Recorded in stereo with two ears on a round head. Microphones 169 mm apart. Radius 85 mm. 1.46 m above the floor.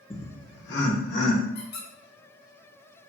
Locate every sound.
0.1 s laughter: 15° left (ahead or behind), 0.7 m; by 1.4 s 75° left (ahead or behind), 1.7 m
1.6 s a squeak: 55° left (ahead or behind), 0.9 m